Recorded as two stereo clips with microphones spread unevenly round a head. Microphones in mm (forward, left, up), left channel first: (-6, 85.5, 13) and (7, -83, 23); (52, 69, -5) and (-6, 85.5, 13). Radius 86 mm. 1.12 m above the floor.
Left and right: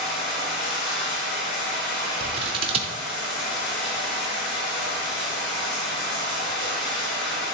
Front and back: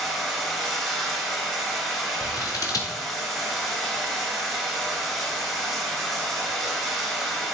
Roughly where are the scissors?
Ahead right.